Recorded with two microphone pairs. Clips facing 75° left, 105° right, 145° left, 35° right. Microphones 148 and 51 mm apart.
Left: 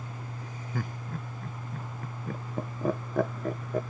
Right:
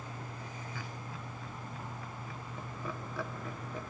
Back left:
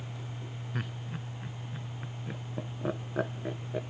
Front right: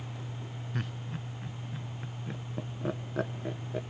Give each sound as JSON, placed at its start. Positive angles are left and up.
{"t": 0.7, "sound": "laughter", "azimuth_deg": 65, "distance_m": 0.8}